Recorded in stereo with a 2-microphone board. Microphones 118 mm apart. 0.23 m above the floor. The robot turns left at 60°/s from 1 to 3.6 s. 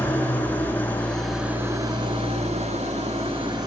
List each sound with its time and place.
0.0 s an engine running: 15° left, 1.0 m; by 3.7 s 140° right, 1.0 m